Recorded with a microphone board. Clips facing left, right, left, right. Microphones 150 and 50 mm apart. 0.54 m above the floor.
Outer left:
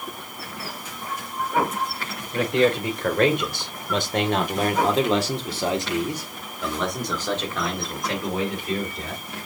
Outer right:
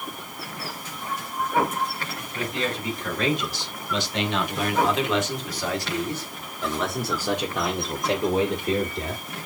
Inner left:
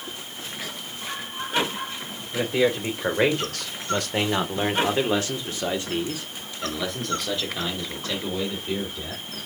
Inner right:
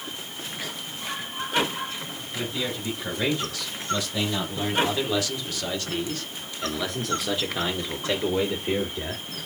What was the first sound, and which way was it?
A man speaking, 65° left (ahead or behind).